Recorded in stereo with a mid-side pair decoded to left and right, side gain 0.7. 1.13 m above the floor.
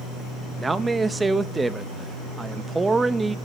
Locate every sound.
0.6 s a man speaking: 15° right, 0.8 m